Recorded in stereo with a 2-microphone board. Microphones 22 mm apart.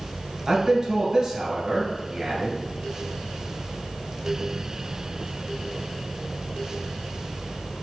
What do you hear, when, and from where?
0.5 s a man speaking: 35° right (ahead or behind), 1.8 m